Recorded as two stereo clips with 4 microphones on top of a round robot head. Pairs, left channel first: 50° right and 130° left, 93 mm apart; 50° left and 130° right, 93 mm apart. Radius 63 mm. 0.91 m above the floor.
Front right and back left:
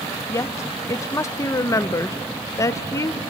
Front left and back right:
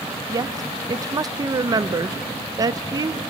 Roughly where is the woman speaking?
Right.